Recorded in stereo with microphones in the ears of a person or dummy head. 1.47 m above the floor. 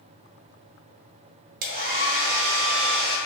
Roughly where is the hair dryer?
Right.